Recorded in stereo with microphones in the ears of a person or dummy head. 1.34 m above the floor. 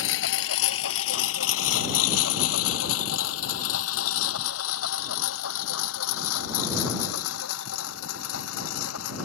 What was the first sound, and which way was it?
A lawn mower, 65° left (ahead or behind).